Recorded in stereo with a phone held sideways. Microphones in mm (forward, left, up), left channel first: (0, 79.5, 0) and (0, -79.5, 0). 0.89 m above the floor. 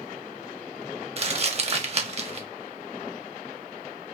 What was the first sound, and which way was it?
Crumpling, 40° right (ahead or behind).